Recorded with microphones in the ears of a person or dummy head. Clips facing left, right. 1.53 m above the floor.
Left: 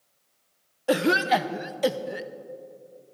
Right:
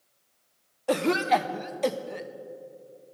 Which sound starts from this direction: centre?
A cough, at 0.9 s.